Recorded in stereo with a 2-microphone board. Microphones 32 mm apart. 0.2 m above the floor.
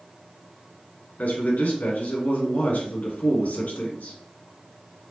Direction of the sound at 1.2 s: 65° left (ahead or behind).